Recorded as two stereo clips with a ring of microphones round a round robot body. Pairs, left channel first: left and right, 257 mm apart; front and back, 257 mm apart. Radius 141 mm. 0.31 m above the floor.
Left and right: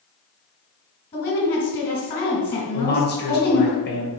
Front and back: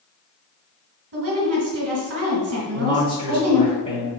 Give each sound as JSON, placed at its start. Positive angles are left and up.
{"t": 1.1, "sound": "a woman speaking", "azimuth_deg": 150, "distance_m": 1.6}
{"t": 2.7, "sound": "a man speaking", "azimuth_deg": 65, "distance_m": 1.5}